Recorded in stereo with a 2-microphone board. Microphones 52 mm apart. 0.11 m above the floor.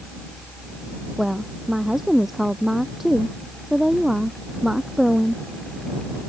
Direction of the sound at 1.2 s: 10° right (ahead or behind).